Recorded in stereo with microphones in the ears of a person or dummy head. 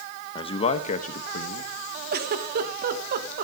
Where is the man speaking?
25° left (ahead or behind), 1.3 m; by 1.7 s 50° left (ahead or behind), 1.7 m.